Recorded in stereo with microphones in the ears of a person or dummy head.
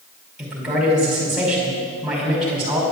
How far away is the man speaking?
About 5 m.